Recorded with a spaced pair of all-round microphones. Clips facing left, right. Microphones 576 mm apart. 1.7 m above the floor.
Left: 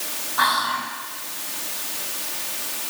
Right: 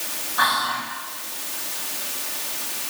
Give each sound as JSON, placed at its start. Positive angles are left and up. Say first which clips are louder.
{"t": 0.4, "sound": "whispering", "louder": "left 1 dB", "side_deg": 30, "distance_m": 3.0}